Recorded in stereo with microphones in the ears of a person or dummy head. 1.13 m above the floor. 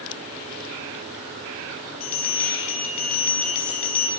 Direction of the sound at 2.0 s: 45° left (ahead or behind).